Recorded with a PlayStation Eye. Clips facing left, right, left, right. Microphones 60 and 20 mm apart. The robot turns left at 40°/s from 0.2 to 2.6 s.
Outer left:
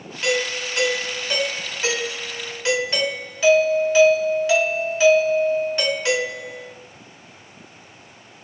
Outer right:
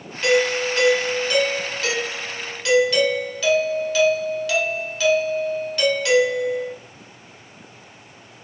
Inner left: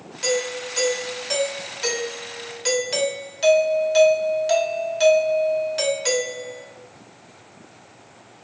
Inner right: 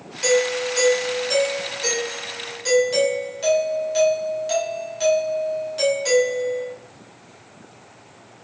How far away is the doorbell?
About 1.1 m.